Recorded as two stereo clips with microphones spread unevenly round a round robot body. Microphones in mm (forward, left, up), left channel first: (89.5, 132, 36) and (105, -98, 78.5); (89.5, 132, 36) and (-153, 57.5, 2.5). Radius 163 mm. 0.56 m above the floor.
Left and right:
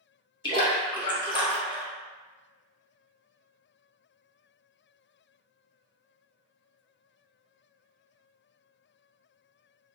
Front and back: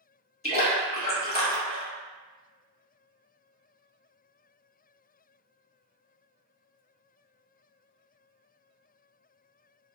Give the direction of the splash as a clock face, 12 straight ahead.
10 o'clock.